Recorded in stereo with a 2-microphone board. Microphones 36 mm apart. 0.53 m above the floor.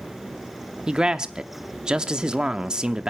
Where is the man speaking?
20° right (ahead or behind), 0.6 m.